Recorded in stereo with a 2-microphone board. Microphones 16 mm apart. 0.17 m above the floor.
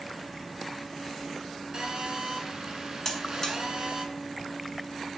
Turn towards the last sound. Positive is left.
turn(degrees=20)  # may be behind; listen again after turning